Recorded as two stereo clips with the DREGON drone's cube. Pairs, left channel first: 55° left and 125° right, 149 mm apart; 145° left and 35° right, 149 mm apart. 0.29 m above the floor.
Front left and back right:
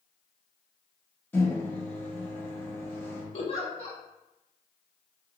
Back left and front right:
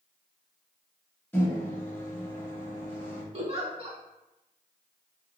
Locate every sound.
1.3 s a microwave: 100° left, 0.7 m
3.3 s a giggle: 10° left, 0.6 m